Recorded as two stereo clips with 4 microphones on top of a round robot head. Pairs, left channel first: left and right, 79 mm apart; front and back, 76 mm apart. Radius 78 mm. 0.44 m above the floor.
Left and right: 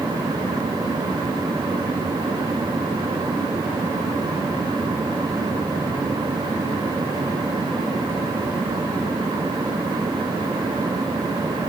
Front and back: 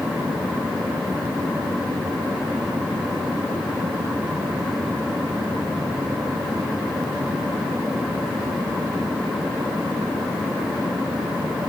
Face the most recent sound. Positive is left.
No sound to turn to.